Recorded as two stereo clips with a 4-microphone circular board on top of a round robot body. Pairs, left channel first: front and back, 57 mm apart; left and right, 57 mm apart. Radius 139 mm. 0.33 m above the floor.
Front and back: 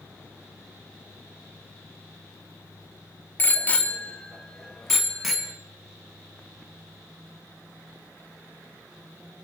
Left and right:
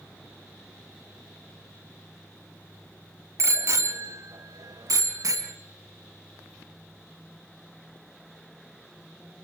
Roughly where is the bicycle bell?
Ahead right.